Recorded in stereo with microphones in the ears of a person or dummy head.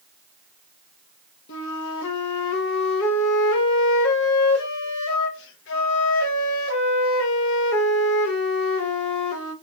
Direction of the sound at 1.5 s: 70° left (ahead or behind).